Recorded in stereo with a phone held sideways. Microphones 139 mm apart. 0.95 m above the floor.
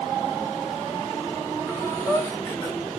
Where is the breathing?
25° left (ahead or behind), 2.5 m.